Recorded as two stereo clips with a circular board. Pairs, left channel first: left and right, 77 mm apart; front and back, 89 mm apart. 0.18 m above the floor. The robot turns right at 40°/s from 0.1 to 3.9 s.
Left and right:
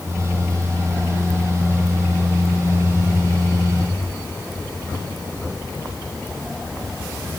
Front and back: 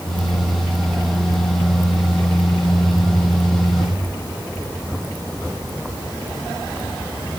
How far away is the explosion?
No explosion in this recording.